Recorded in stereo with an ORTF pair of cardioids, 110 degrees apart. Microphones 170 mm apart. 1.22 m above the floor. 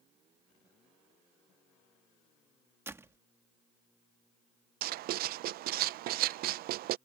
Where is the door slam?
15° right.